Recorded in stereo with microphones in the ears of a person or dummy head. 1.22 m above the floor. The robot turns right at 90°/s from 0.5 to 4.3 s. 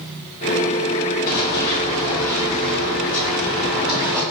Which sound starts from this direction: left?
Running footsteps, at 1.3 s.